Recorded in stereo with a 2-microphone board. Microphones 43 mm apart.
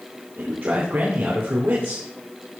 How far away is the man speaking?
About 2.5 m.